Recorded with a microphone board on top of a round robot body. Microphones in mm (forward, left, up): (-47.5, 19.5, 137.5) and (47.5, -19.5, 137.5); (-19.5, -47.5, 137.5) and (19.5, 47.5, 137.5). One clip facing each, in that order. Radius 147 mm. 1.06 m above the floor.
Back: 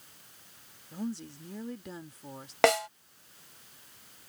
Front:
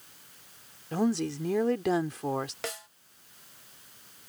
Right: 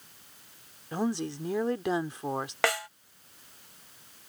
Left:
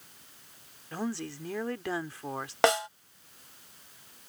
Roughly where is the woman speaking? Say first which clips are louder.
Front 10 dB, right 4 dB; ahead right.